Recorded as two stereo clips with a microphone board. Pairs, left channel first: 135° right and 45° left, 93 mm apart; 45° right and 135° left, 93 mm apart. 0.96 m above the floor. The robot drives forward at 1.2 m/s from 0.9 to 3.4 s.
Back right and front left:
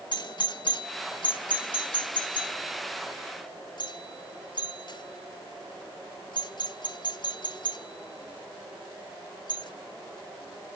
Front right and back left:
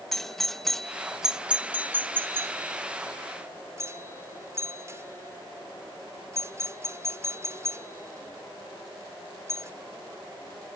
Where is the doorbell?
130° right; by 9.7 s 165° right.